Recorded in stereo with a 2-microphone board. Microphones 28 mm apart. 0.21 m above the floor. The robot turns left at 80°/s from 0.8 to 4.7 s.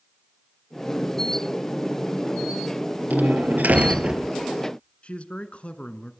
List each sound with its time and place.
3.1 s a door slam: 60° right, 3 m; by 4.2 s 150° right, 3 m
5.0 s a man speaking: 40° left (ahead or behind), 2.0 m